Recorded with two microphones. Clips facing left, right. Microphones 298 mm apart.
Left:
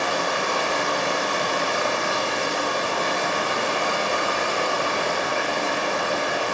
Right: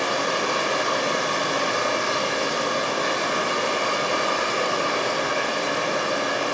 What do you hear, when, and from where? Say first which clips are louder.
0.0 s running water: right 1 dB; 30° left (ahead or behind), 1.4 m